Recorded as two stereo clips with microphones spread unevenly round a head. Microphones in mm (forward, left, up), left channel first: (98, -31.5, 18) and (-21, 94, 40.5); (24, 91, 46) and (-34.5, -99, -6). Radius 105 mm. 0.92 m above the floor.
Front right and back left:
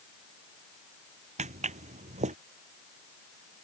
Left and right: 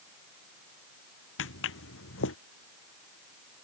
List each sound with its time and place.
1.4 s footsteps: 90° left